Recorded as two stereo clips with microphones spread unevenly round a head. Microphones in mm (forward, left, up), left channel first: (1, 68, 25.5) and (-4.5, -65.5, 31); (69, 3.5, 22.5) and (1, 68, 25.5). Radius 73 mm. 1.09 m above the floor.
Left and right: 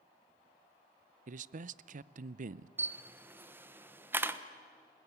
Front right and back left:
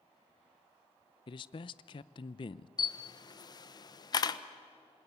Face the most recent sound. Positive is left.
turn(degrees=-20)